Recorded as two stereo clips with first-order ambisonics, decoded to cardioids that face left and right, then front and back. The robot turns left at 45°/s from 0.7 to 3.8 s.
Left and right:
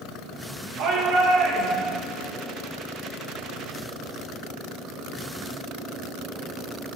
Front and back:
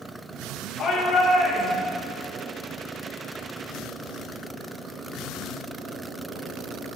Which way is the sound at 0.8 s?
65° right.